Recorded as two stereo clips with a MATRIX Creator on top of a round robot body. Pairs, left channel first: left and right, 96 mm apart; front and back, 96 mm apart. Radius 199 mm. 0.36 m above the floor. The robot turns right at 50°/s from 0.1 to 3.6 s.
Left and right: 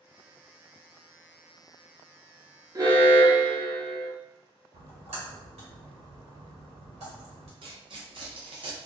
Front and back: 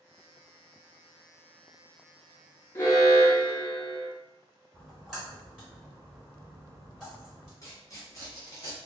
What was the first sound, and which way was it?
An alarm, 50° right.